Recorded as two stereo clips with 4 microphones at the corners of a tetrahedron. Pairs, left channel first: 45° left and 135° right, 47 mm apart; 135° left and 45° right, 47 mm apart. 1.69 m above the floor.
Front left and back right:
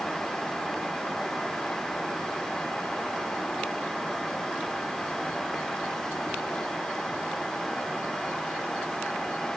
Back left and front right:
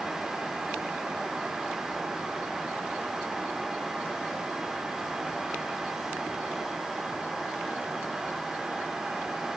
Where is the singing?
I don't hear singing.